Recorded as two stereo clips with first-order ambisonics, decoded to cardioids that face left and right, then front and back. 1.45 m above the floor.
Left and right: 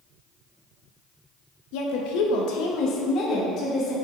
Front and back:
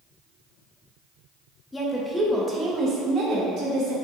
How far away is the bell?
I don't hear a bell.